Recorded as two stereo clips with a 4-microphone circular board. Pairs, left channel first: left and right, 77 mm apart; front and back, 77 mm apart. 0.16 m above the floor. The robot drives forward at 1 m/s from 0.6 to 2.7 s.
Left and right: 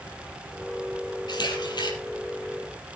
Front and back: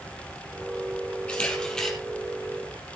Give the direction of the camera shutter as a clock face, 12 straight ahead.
10 o'clock.